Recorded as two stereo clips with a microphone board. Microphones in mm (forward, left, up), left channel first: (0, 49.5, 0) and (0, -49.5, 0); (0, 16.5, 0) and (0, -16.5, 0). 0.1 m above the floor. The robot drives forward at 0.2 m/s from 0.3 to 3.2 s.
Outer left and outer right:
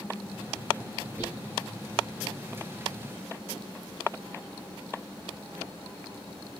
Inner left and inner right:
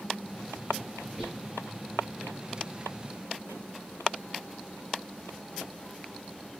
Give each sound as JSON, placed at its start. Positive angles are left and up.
{"t": 1.2, "sound": "whispering", "side_deg": -20, "distance_m": 1.4}